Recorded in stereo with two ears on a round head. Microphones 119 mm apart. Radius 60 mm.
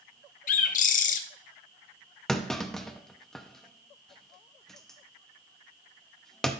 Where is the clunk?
5° left (ahead or behind), 0.6 m.